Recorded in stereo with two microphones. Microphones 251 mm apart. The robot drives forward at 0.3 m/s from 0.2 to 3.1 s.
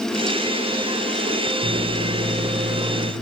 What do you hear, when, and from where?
1.6 s a microwave: 20° right (ahead or behind), 3 m; by 3.1 s 25° right (ahead or behind), 3 m